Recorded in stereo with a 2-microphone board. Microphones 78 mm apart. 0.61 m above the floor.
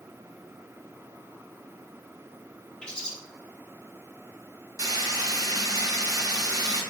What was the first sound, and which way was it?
A bird, 10° left (ahead or behind).